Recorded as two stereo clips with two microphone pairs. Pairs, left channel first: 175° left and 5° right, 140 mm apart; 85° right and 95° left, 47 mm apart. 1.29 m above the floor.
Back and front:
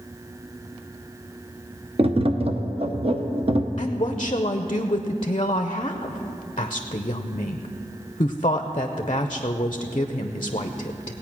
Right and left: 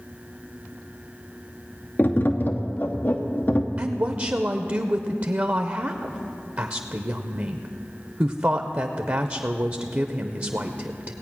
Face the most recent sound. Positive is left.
turn(degrees=135)